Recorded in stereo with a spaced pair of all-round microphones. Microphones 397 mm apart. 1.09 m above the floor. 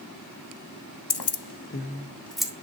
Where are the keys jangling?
70° left (ahead or behind), 0.8 m; by 2.5 s 5° right (ahead or behind), 1.6 m.